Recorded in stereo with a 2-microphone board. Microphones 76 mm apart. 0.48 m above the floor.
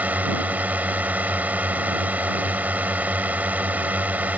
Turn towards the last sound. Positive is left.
turn(degrees=-20)  # may be behind; listen again after turning